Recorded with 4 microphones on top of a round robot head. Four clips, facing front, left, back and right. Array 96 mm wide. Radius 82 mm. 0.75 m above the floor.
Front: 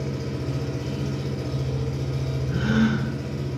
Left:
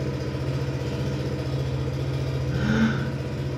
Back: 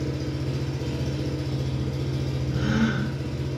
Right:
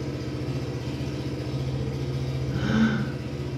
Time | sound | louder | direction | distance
0.0 | an engine running | left 2 dB, even | 75° left | 2 m
2.5 | a gasp | even, front 3 dB | 15° left | 4.5 m